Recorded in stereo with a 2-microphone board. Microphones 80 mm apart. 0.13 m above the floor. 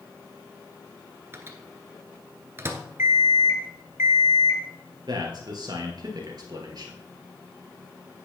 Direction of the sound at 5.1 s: 60° right (ahead or behind).